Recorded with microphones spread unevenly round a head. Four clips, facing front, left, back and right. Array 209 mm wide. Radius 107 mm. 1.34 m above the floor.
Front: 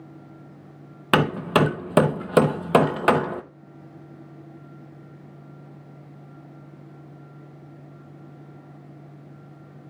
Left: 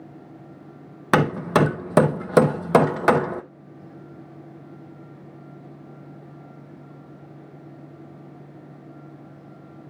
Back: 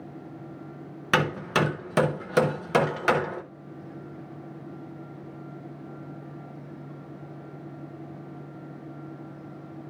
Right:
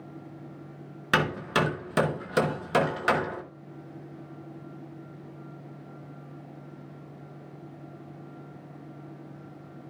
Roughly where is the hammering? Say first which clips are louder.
Left 7 dB, front 5 dB; ahead left.